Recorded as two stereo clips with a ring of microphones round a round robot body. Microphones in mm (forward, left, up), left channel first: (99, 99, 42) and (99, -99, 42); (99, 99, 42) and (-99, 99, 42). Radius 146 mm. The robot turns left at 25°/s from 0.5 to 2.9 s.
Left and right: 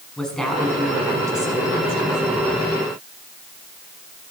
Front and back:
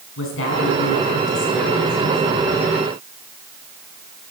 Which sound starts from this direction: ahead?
A woman speaking, at 0.2 s.